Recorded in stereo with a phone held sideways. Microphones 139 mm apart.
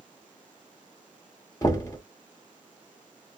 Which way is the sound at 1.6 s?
20° left (ahead or behind).